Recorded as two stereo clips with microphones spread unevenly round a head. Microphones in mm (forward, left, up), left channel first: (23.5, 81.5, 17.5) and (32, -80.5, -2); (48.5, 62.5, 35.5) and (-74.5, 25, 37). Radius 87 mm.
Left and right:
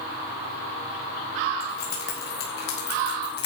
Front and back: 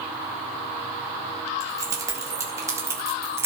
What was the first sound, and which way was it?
Keys jangling, 135° left.